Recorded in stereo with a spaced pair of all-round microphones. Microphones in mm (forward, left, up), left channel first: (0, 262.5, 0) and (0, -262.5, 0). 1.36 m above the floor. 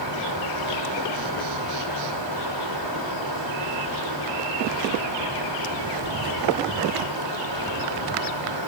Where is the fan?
50° right (ahead or behind), 3 m.